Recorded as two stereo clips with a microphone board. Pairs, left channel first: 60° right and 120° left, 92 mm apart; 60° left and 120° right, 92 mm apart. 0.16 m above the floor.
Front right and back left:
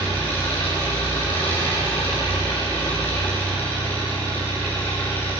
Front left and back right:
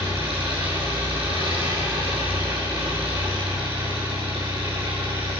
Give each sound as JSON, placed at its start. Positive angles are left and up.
{"t": 0.0, "sound": "an engine running", "azimuth_deg": -130, "distance_m": 6.5}